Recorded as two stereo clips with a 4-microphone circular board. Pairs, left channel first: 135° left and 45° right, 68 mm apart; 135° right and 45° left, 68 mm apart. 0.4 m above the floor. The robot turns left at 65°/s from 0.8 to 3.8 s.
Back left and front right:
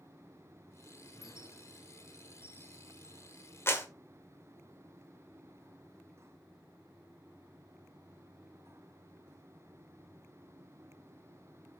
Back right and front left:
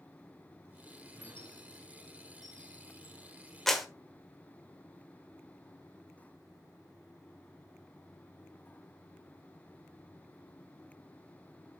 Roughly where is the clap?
Behind left.